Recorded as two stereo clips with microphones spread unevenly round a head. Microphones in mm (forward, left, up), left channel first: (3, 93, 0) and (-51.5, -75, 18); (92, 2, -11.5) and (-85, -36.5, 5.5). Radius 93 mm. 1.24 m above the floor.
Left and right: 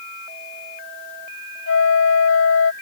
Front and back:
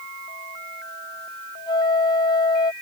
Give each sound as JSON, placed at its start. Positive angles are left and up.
{"t": 1.7, "sound": "a flute", "azimuth_deg": 85}